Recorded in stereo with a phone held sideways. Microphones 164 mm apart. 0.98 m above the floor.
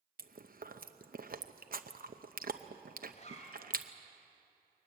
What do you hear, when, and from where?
0.2 s chewing: 60° right (ahead or behind), 0.8 m
3.1 s a zipper: 45° left (ahead or behind), 2.5 m